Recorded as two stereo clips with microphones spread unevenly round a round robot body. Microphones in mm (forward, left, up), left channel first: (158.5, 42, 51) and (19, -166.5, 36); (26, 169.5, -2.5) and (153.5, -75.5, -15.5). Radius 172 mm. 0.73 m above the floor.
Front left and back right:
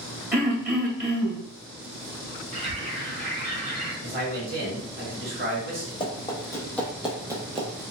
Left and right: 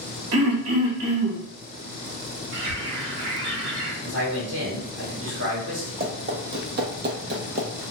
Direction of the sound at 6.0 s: 10° right.